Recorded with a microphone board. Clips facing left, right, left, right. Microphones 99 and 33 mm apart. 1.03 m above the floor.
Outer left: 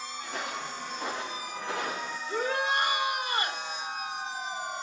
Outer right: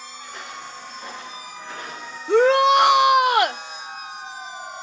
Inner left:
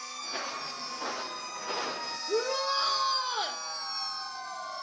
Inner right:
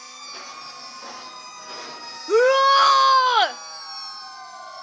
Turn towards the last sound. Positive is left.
turn(degrees=-75)  # may be behind; listen again after turning